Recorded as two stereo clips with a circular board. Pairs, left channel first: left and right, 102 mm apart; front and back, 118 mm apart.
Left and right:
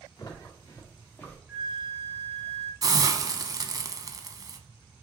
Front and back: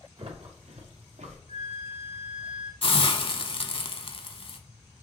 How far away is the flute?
About 1.2 m.